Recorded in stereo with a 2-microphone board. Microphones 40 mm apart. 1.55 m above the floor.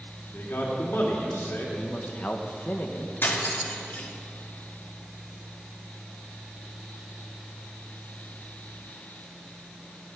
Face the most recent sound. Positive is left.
turn(degrees=60)  # may be behind; listen again after turning